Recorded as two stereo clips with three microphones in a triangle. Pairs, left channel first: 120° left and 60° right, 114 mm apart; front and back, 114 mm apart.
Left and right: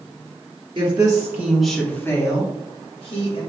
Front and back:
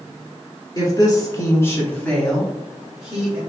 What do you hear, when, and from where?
0.8 s a woman speaking: 40° right, 1.5 m; by 3.4 s 100° left, 2.5 m